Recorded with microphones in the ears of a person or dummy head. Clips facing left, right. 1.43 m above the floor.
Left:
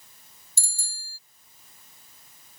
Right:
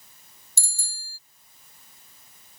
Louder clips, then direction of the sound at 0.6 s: Right 1 dB; 70° right (ahead or behind).